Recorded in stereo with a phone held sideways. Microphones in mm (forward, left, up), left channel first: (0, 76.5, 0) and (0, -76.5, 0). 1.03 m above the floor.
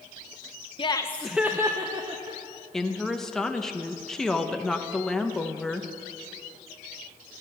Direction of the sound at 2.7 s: 5° left (ahead or behind).